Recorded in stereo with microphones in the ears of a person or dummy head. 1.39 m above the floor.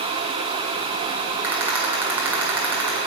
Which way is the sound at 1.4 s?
10° right (ahead or behind).